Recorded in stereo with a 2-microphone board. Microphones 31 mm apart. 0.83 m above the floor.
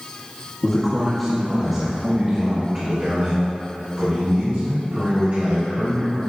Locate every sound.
0.6 s a man speaking: 30° left (ahead or behind), 0.9 m; by 6.2 s 75° right (ahead or behind), 3 m